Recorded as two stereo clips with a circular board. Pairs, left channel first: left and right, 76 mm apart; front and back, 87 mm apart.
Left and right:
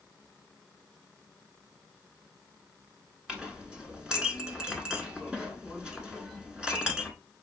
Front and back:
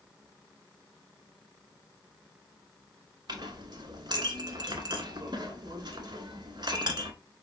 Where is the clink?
165° right, 1.1 m.